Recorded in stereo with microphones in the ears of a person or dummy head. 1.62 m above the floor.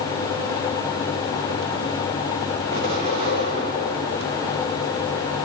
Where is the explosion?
50° right (ahead or behind), 3.5 m.